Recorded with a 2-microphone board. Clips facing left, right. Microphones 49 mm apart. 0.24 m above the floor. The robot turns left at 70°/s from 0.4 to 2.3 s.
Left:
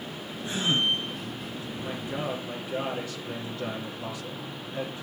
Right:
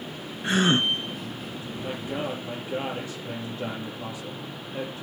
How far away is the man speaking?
About 6.5 m.